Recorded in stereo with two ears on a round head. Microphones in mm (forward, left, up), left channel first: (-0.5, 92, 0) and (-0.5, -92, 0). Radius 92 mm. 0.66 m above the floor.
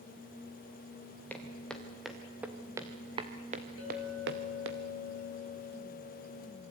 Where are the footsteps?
10° left (ahead or behind), 4 m; by 4.8 s 70° right (ahead or behind), 2.5 m.